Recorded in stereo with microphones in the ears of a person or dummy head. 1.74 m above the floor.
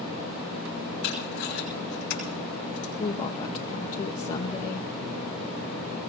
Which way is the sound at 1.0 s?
60° left (ahead or behind).